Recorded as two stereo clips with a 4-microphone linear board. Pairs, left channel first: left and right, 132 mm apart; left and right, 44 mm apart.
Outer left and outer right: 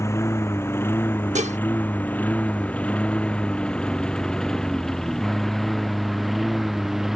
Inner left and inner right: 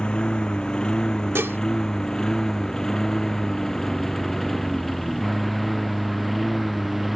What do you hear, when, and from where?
0.0 s a lawn mower: 20° left (ahead or behind); by 7.2 s centre (ahead or behind)
1.4 s dishes clattering: 60° right (ahead or behind)